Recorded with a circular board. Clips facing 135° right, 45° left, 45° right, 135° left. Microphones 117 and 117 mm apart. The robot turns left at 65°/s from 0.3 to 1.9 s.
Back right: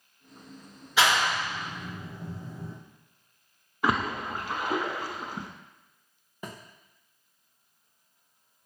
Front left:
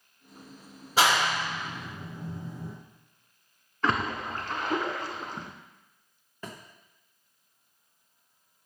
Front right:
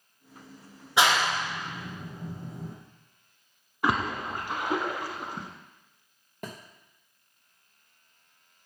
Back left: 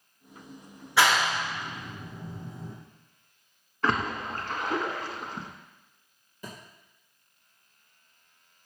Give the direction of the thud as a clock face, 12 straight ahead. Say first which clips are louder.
Back right 1 dB, front right 3 dB; 2 o'clock.